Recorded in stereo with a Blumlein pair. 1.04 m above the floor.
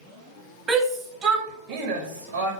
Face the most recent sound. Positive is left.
turn(degrees=-70)